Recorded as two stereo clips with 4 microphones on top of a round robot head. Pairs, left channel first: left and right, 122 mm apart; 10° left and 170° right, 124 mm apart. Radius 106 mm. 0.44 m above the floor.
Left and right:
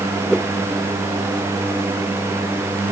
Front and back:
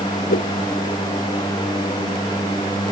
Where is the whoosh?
5° left.